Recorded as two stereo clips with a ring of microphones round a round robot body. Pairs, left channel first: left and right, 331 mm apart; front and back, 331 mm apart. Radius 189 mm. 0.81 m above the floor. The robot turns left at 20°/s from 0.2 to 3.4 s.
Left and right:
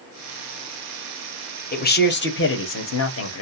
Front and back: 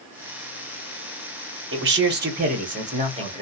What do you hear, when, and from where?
1.7 s a man speaking: 145° left, 1.1 m; by 3.4 s 110° left, 1.1 m